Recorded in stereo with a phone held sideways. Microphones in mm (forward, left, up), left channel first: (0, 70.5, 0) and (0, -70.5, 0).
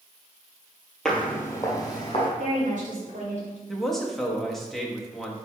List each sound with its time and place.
1.1 s footsteps: 5° left (ahead or behind), 1.3 m; by 2.3 s 35° left (ahead or behind), 2.5 m
2.4 s a woman speaking: 60° right (ahead or behind), 2.5 m
3.7 s a man speaking: centre (ahead or behind), 1.1 m